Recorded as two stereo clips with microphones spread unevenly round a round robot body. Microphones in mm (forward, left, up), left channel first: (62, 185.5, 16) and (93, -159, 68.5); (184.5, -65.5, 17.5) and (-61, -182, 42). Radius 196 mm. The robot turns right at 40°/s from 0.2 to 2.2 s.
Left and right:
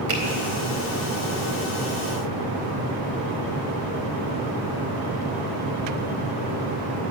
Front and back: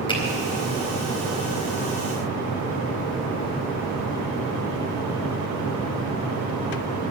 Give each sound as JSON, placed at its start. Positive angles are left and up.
{"t": 0.1, "sound": "a finger snap", "azimuth_deg": -45, "distance_m": 4.0}